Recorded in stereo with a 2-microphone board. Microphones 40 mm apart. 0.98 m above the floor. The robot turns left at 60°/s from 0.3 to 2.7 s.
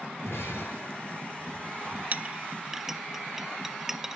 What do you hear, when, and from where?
0.2 s breaking glass: 80° left, 6.5 m; by 2.0 s 25° right (ahead or behind), 6.5 m
2.1 s a clink: 40° right (ahead or behind), 0.7 m; by 4.2 s 10° right (ahead or behind), 0.7 m